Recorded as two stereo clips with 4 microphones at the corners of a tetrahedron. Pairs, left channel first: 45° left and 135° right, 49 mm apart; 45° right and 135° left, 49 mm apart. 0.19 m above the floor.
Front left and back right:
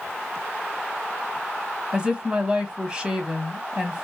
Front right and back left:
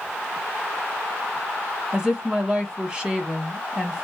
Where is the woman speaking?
170° right, 1.0 m.